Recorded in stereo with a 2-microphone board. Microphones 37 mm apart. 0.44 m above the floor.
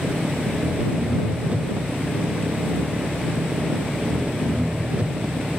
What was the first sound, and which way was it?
An engine running, 30° right (ahead or behind).